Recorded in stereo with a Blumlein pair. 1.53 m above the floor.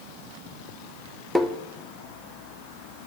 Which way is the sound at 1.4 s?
Straight ahead.